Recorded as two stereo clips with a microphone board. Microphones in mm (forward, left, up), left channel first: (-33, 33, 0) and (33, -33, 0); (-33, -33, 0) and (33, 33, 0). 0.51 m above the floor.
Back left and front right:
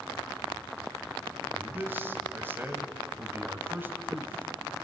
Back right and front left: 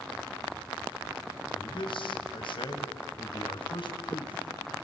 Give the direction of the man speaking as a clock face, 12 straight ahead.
4 o'clock.